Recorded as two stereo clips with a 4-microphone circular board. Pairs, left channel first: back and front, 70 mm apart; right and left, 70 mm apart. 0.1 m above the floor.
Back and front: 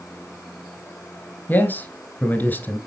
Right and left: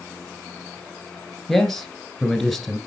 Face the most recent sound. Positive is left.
turn(degrees=-175)